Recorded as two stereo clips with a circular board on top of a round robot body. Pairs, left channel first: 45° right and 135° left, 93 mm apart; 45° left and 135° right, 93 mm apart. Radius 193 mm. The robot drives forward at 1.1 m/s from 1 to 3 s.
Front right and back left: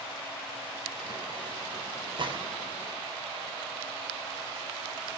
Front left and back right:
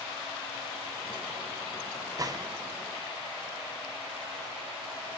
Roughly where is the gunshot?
Behind.